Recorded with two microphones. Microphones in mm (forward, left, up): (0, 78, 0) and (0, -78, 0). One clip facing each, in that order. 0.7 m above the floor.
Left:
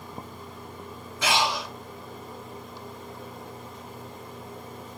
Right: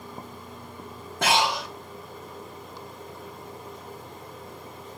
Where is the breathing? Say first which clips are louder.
Right 2 dB; 60° right (ahead or behind), 1.5 m.